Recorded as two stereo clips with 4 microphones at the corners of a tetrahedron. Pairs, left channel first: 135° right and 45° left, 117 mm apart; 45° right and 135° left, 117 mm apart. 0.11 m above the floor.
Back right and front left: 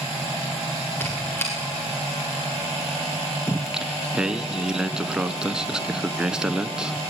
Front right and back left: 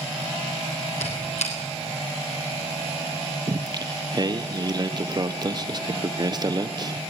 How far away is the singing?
About 0.9 m.